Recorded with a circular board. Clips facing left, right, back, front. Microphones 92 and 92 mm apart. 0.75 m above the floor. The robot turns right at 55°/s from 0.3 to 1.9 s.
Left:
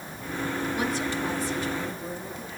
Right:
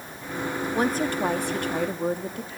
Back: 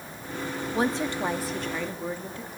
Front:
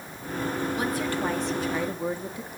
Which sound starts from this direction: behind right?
A woman speaking, at 0.7 s.